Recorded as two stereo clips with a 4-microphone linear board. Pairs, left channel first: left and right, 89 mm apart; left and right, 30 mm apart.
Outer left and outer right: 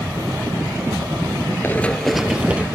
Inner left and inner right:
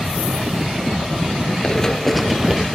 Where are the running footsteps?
25° left (ahead or behind), 1.0 m; by 2.6 s 15° right (ahead or behind), 1.7 m.